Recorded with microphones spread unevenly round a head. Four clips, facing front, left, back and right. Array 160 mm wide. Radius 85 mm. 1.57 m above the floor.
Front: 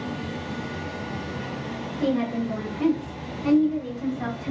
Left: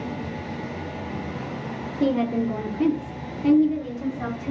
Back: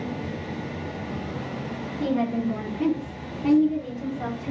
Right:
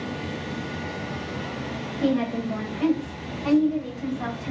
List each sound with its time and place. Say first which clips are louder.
2.0 s a woman speaking: left 2 dB, even; 105° left, 1.2 m; by 4.5 s 150° left, 1.8 m